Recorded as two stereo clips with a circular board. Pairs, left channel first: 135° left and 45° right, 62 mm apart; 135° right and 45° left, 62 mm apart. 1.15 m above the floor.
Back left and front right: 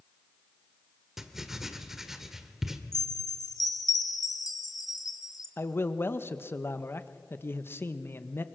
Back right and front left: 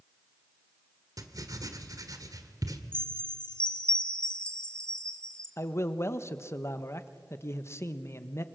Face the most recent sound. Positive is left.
turn(degrees=-175)